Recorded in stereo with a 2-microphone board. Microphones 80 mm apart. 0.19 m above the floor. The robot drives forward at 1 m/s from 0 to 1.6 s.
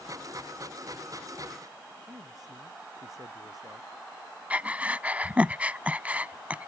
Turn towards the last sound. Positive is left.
turn(degrees=-20)  # may be behind; listen again after turning